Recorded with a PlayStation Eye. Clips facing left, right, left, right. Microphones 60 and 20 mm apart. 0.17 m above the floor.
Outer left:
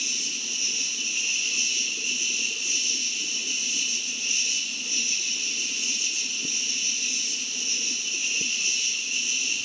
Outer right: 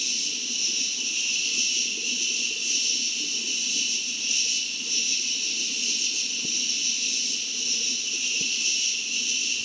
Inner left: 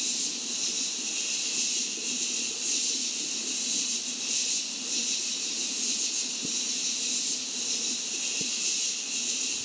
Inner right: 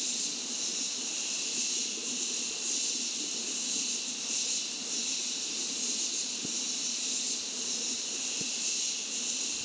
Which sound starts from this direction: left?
An insect, at 0.0 s.